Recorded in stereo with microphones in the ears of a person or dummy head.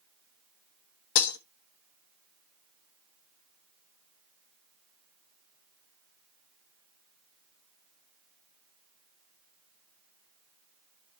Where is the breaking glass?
70° left (ahead or behind), 1.2 m.